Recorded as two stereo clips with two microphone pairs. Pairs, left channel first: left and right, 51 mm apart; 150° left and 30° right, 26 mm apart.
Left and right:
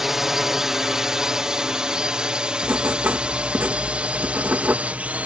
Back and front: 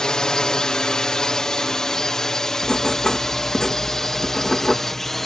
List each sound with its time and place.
0.0 s a drone: 170° right; by 5.3 s 135° right
2.6 s writing: 145° right